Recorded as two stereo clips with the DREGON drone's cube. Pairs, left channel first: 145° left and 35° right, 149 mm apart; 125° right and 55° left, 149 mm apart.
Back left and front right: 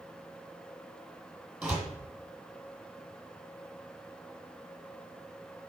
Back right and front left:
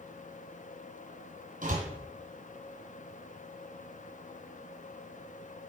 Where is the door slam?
45° left, 1.7 m.